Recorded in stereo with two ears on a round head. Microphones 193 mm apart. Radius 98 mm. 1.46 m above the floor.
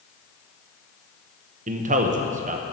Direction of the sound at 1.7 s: 40° right (ahead or behind).